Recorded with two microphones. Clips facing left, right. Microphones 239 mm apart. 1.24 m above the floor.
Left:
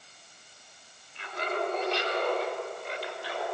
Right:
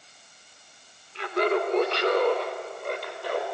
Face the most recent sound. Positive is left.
turn(degrees=-50)  # may be behind; listen again after turning